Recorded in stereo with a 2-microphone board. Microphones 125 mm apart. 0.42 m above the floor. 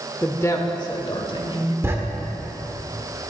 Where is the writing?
20° right (ahead or behind), 1.2 m.